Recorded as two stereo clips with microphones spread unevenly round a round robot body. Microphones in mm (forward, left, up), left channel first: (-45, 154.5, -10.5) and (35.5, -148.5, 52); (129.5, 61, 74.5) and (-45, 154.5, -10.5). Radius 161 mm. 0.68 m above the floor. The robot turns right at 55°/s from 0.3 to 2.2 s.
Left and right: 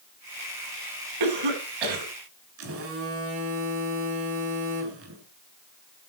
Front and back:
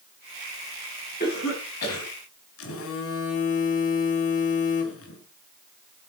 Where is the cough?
95° right, 6 m; by 2.1 s 50° right, 6 m.